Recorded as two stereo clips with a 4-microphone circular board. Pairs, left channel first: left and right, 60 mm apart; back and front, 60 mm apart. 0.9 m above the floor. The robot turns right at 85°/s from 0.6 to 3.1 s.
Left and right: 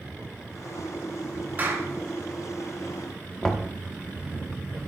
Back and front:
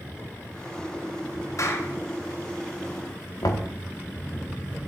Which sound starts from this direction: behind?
Knocking, at 3.4 s.